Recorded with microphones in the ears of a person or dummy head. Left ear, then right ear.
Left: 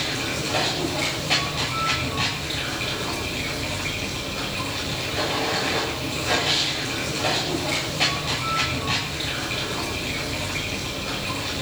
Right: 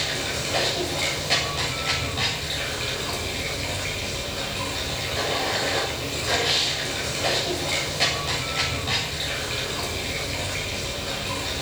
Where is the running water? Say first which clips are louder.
Even; 5° right (ahead or behind), 7.5 m.